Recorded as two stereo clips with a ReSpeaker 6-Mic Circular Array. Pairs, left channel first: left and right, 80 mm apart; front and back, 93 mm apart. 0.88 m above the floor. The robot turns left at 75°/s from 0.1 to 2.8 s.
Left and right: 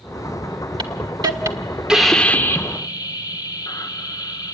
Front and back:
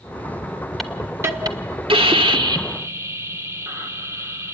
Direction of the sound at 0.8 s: 85° right.